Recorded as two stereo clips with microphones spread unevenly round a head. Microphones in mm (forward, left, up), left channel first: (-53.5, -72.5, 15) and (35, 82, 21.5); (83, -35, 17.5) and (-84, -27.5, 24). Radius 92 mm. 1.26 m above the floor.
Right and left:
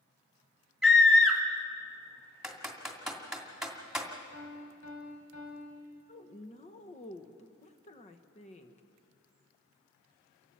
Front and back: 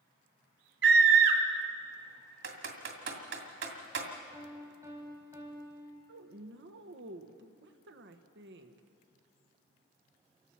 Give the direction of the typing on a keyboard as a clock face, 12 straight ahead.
7 o'clock.